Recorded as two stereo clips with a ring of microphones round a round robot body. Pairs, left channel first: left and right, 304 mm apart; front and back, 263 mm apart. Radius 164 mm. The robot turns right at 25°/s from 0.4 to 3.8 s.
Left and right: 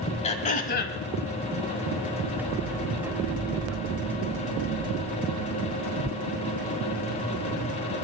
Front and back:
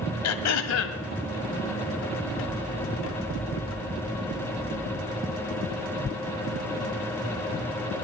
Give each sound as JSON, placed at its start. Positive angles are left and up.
{"t": 0.2, "sound": "throat clearing", "azimuth_deg": 20, "distance_m": 1.2}